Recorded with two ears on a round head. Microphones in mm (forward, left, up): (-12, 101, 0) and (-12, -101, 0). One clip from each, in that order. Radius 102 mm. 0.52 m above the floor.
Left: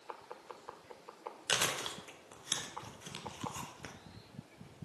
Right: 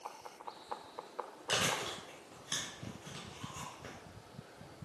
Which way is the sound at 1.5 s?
45° left (ahead or behind).